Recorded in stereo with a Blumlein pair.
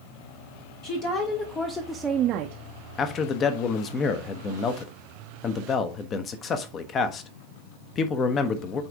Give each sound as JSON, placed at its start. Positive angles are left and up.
{"t": 0.8, "sound": "a woman speaking", "azimuth_deg": 40, "distance_m": 1.4}
{"t": 3.0, "sound": "a man speaking", "azimuth_deg": 25, "distance_m": 1.0}